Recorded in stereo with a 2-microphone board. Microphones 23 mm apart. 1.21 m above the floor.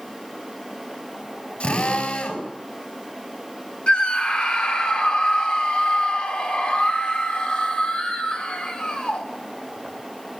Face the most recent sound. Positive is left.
turn(degrees=55)  # may be behind; listen again after turning